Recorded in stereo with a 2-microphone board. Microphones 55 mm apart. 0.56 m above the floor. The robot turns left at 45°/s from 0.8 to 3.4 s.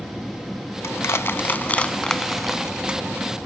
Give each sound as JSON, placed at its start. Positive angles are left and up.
{"t": 0.8, "sound": "crushing", "side_deg": 60, "distance_m": 0.8}